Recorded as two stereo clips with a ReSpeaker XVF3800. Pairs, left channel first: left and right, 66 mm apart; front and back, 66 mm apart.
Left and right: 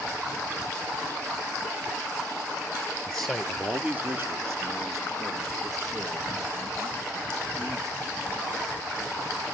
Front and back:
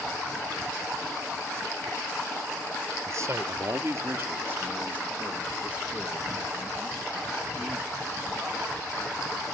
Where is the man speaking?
165° left, 1.7 m; by 9.4 s 95° right, 7.5 m.